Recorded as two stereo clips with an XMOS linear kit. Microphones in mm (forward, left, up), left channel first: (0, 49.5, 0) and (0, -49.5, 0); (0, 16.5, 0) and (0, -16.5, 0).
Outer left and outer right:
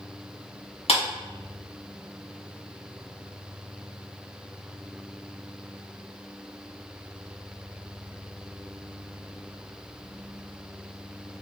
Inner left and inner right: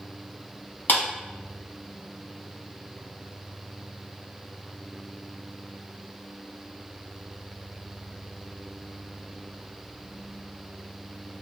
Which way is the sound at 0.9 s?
80° left.